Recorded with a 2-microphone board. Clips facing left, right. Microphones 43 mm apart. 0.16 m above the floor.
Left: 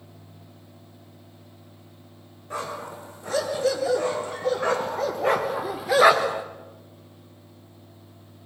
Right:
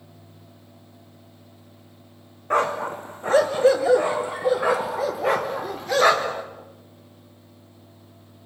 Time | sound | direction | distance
2.5 | a dog barking | 50° right (ahead or behind) | 3 m